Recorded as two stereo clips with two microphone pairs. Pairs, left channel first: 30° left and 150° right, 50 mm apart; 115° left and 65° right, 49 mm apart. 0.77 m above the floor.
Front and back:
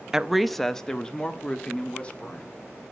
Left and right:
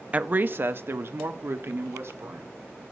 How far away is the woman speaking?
About 0.6 m.